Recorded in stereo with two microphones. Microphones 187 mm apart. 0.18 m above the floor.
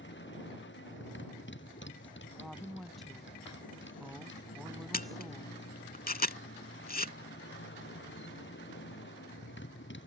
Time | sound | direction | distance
0.0 | a motorcycle | 90° left | ?
2.4 | a woman speaking | centre (ahead or behind) | ?
4.9 | a camera shutter | 50° left (ahead or behind) | ?